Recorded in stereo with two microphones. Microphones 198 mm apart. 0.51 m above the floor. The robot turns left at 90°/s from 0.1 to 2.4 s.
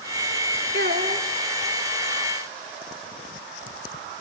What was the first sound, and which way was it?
A child speaking, 105° right.